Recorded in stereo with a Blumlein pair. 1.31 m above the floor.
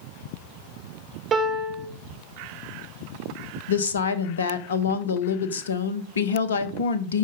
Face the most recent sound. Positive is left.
turn(degrees=70)